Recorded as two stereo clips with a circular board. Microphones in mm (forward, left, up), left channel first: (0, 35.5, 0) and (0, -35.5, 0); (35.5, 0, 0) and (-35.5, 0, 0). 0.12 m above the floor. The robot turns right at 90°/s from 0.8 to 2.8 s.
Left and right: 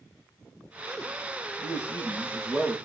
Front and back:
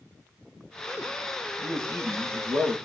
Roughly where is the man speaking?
Left.